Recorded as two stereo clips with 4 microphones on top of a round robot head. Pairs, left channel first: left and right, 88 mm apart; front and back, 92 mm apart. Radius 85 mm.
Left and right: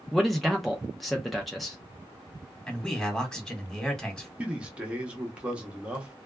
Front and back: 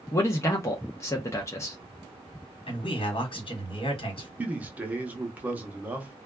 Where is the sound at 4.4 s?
140° right, 0.8 m.